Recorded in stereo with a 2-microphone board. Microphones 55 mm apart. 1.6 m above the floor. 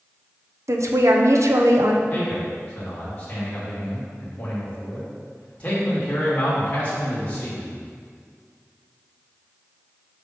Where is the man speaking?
30° left (ahead or behind), 3 m.